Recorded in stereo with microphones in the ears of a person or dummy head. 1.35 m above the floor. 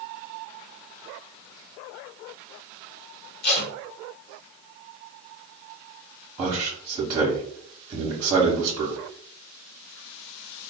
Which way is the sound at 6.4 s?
15° right (ahead or behind).